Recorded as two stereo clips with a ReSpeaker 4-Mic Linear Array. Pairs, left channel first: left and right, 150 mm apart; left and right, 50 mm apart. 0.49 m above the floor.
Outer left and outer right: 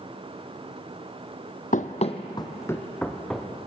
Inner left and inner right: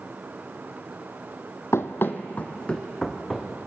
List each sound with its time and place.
1.7 s running footsteps: 60° left (ahead or behind), 1.1 m; by 3.5 s centre (ahead or behind), 2.5 m